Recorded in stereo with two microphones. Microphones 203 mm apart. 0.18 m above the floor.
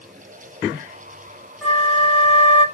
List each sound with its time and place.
1.6 s a flute: 5° left (ahead or behind), 1.2 m